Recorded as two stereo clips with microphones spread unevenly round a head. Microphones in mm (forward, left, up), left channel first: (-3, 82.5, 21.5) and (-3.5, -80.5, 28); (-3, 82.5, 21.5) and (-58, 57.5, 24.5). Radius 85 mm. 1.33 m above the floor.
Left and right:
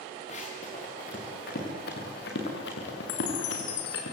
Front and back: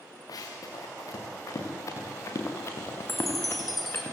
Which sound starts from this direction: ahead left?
Running footsteps, at 0.3 s.